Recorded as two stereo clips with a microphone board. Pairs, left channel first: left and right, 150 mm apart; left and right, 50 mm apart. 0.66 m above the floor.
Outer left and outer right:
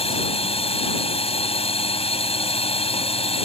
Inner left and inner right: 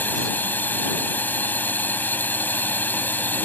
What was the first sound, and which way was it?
A drone, 40° left (ahead or behind).